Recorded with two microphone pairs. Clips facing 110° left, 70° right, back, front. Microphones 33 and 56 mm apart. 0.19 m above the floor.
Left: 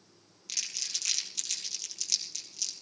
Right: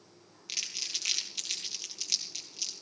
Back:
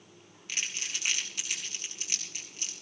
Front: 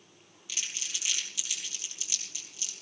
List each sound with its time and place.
0.5 s crumpling: 140° right, 2.5 m